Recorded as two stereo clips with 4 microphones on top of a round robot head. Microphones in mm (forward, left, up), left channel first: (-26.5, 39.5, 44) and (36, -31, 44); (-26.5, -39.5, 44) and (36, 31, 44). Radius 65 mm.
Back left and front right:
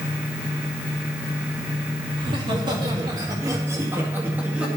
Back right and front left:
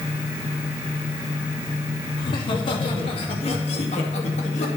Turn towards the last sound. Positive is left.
turn(degrees=-130)